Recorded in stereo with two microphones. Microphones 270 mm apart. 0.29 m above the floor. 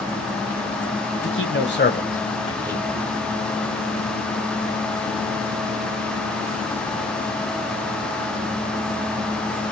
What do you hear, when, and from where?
1.2 s a man speaking: 50° left (ahead or behind), 1.7 m; by 3.0 s 10° right (ahead or behind), 1.1 m